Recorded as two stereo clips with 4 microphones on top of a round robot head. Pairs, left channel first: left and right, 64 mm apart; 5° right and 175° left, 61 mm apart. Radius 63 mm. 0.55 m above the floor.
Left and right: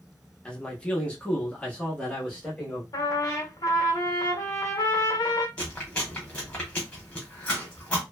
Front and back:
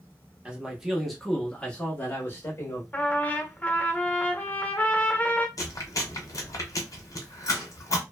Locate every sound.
0.5 s a man speaking: 140° left, 1.0 m; by 2.8 s 20° left, 1.4 m
2.9 s a trumpet: 60° left, 0.7 m
5.6 s chewing: 15° left, 1.1 m